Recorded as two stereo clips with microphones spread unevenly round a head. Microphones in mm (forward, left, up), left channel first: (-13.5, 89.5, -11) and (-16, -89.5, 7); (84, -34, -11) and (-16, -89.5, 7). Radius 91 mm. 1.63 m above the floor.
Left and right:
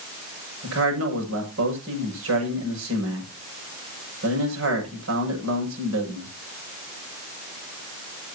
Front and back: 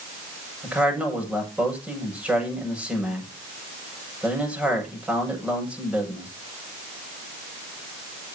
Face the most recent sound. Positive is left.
turn(degrees=-70)